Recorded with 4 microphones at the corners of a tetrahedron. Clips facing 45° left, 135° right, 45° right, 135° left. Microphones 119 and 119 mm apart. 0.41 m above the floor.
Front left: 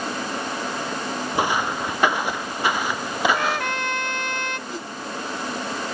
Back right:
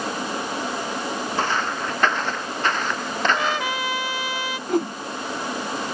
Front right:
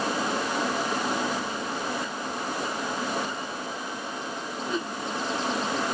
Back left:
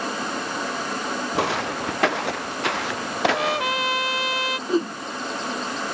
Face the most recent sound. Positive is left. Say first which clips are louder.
# back right 11 dB, back left 9 dB
turn(degrees=-170)